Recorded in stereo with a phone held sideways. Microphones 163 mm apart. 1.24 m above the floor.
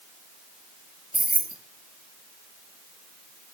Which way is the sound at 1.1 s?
60° right (ahead or behind).